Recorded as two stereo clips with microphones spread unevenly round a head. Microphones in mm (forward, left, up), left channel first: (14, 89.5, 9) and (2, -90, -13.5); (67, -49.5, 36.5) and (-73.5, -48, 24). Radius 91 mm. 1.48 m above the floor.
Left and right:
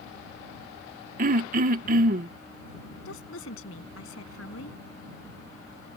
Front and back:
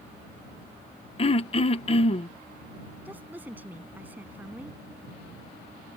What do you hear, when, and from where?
1.2 s throat clearing: 50° right
3.0 s a woman speaking: 100° left